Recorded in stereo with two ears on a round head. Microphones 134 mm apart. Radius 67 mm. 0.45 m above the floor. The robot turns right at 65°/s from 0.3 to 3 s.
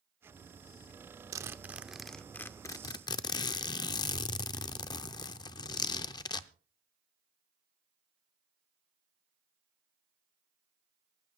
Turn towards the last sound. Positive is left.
turn(degrees=65)